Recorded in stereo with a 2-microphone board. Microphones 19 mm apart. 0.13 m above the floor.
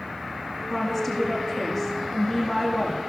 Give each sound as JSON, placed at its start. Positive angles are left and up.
{"t": 0.7, "sound": "a woman speaking", "side_deg": 5, "distance_m": 5.5}